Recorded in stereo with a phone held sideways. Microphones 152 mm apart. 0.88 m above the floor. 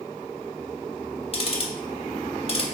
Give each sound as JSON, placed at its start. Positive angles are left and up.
{"t": 1.3, "sound": "ticking", "side_deg": 40, "distance_m": 0.5}